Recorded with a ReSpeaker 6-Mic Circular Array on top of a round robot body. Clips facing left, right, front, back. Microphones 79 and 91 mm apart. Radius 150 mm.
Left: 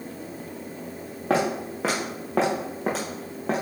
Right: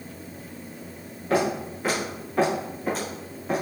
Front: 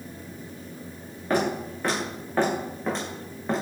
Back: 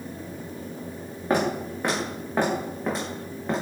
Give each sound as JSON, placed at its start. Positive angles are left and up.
{"t": 1.3, "sound": "footsteps", "azimuth_deg": 110, "distance_m": 3.0}